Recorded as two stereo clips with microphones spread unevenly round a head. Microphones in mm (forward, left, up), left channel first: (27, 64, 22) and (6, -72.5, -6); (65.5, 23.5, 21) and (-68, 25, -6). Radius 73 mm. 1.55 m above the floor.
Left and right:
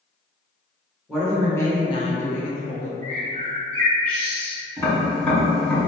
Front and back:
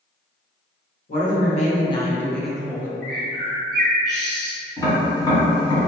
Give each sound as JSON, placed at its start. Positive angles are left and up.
{"t": 1.1, "sound": "a woman speaking", "azimuth_deg": 0, "distance_m": 0.9}
{"t": 3.0, "sound": "a bird", "azimuth_deg": 55, "distance_m": 1.4}
{"t": 4.8, "sound": "tapping", "azimuth_deg": 25, "distance_m": 1.7}